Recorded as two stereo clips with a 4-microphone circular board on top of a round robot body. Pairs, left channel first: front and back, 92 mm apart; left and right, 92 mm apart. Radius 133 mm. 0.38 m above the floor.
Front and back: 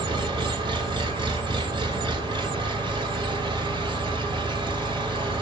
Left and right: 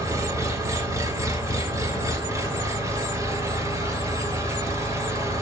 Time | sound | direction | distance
0.0 | an engine running | 145° right | 1.9 m